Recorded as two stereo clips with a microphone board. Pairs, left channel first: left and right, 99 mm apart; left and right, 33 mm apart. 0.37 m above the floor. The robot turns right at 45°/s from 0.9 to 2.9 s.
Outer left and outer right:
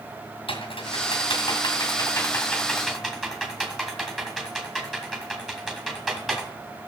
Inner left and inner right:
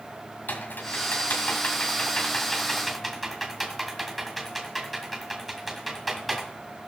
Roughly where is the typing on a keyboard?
Left.